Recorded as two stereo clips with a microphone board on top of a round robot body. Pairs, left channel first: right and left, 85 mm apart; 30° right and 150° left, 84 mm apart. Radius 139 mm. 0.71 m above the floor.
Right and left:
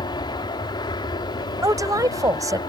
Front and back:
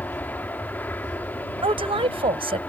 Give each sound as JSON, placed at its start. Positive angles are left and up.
{"t": 0.0, "sound": "an aircraft", "azimuth_deg": -95}
{"t": 1.6, "sound": "a woman speaking", "azimuth_deg": 140}